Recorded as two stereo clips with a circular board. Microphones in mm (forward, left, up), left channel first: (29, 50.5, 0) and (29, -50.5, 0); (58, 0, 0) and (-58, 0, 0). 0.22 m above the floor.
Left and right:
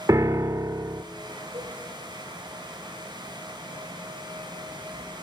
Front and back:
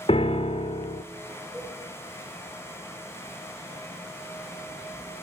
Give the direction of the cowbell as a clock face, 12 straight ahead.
3 o'clock.